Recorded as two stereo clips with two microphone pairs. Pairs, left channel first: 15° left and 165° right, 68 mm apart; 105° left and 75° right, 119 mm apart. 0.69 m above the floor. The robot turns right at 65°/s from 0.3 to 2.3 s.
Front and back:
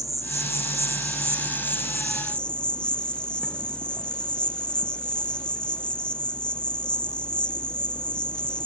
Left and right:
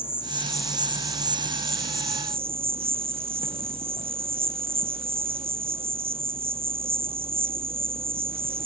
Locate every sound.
0.0 s an insect: 175° left; by 8.7 s 55° right